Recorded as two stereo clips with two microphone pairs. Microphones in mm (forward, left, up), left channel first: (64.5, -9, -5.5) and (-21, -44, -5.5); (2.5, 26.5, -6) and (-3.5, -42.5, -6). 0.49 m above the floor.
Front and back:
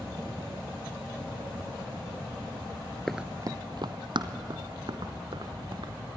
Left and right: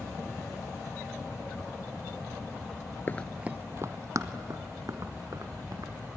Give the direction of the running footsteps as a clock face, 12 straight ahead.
9 o'clock.